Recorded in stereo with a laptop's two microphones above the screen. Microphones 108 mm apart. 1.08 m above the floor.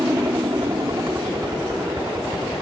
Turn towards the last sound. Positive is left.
turn(degrees=-30)  # may be behind; listen again after turning